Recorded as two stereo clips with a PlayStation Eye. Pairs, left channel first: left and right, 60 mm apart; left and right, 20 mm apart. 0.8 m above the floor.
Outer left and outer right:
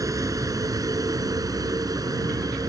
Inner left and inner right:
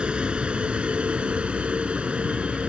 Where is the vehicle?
65° right (ahead or behind); by 2.7 s 80° right.